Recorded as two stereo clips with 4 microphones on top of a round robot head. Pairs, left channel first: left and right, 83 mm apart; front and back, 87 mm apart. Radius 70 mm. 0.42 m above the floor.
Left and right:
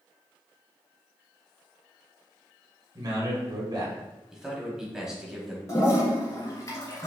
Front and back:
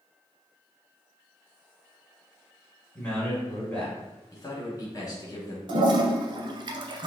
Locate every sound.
3.0 s a man speaking: 75° right, 2.0 m
4.3 s a man speaking: 5° right, 1.3 m
5.7 s a toilet flushing: 155° left, 0.8 m